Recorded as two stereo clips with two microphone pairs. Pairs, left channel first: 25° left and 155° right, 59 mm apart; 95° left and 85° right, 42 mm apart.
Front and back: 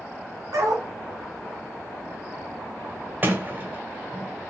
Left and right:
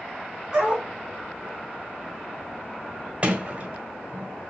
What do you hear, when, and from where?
0.5 s a dog barking: 165° right, 1.5 m
3.2 s a sliding door: 125° right, 1.2 m